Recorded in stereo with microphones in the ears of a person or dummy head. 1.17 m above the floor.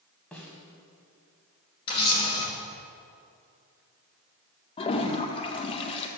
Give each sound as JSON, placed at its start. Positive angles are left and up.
{"t": 0.3, "sound": "a snare drum", "side_deg": 5, "distance_m": 1.2}
{"t": 1.9, "sound": "a camera shutter", "side_deg": 25, "distance_m": 1.4}
{"t": 4.8, "sound": "a toilet flushing", "side_deg": 30, "distance_m": 0.6}